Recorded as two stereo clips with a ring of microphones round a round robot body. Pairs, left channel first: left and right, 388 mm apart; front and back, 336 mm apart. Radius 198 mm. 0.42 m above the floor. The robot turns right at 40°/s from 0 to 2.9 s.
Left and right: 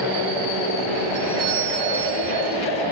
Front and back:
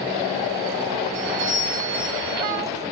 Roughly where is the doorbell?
Behind.